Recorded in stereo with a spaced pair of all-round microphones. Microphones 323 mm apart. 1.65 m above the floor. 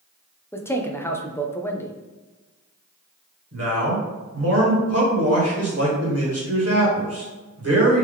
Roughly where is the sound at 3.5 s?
Right.